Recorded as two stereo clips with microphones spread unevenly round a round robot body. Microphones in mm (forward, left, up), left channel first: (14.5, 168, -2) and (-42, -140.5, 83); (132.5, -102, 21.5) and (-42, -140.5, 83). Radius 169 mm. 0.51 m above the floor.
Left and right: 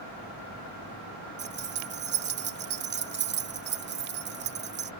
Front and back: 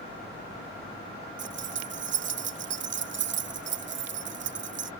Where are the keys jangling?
160° right.